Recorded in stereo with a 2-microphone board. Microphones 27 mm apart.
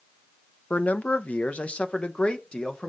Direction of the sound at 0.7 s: 80° left.